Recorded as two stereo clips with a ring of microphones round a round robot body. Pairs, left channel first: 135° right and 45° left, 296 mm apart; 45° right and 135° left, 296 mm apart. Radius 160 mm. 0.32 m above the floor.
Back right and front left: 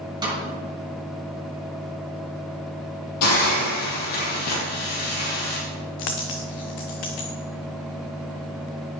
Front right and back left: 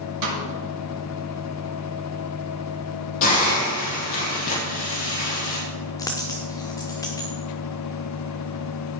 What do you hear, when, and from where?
0.2 s a snare drum: 120° left, 5.5 m
3.2 s a hiss: 95° right, 5.5 m
6.0 s a dropped coin: 125° right, 1.7 m